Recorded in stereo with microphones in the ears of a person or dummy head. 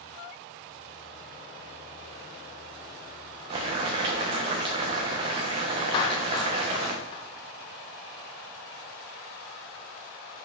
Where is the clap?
25° left (ahead or behind), 0.7 m.